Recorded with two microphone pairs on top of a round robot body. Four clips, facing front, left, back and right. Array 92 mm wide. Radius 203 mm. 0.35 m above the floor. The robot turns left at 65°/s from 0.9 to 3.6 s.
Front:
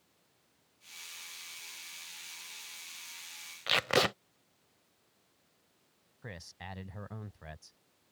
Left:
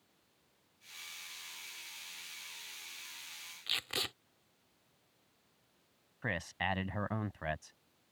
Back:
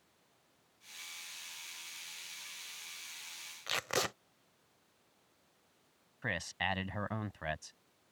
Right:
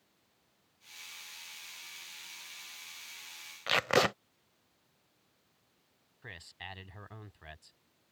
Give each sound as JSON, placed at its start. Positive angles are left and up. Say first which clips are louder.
{"t": 3.7, "sound": "tape being pulled", "louder": "right 16 dB, front 7 dB", "azimuth_deg": -70}
{"t": 6.2, "sound": "a man speaking", "louder": "left 12 dB, back 10 dB", "azimuth_deg": 125}